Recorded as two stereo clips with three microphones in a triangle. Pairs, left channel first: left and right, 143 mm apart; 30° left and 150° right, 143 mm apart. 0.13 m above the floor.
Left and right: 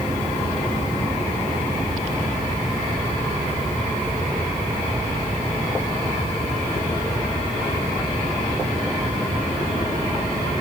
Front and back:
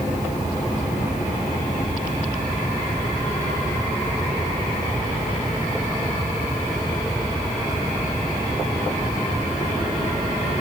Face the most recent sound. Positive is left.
No sound to turn to.